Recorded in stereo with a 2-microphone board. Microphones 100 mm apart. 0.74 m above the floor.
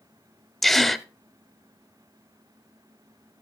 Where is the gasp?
5° left (ahead or behind), 0.7 m.